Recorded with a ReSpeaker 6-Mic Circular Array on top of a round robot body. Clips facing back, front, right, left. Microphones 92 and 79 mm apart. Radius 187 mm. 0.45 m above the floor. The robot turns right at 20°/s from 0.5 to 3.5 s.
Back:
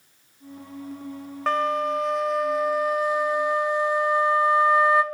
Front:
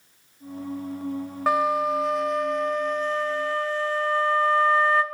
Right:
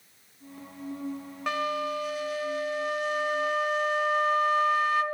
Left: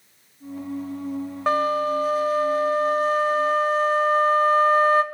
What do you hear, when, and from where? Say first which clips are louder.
1.5 s a flute: front 1 dB, left 8 dB; 75° left, 0.8 m; by 5.0 s 115° left, 0.8 m